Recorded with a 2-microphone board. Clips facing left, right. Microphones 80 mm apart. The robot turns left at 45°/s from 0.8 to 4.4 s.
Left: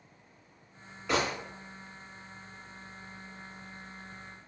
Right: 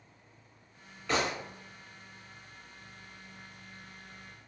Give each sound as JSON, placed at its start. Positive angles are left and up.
{"t": 1.1, "sound": "a gunshot", "side_deg": 10, "distance_m": 1.7}